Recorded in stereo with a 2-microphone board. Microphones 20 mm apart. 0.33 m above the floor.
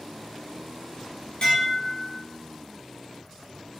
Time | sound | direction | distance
1.4 | dishes clattering | 45° left (ahead or behind) | 0.7 m